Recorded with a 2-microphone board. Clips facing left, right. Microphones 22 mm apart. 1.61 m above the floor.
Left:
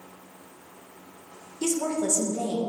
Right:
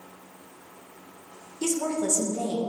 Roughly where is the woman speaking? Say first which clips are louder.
Even; centre.